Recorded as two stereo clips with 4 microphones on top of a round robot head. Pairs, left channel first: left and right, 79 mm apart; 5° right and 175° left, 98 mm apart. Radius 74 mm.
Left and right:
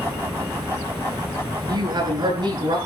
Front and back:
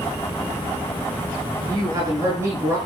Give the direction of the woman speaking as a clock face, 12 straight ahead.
4 o'clock.